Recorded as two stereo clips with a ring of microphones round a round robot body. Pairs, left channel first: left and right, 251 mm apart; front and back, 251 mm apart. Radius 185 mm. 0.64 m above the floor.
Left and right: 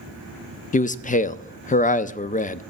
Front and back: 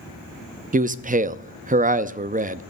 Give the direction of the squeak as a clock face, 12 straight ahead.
No squeak in this recording.